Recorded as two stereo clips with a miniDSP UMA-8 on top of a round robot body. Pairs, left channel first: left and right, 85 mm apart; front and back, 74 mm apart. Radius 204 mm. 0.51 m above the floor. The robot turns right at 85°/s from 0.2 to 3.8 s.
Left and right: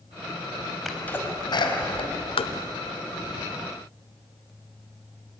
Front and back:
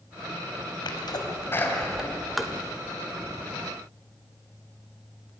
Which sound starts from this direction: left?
Tapping, at 2.4 s.